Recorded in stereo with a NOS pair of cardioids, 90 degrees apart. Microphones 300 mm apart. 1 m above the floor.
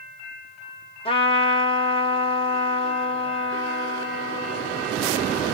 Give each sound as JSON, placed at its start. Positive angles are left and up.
{"t": 1.1, "sound": "a trumpet", "azimuth_deg": 20, "distance_m": 0.9}